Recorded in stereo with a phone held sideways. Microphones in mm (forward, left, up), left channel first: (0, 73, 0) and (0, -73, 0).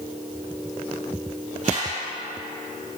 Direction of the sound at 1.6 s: 55° right (ahead or behind).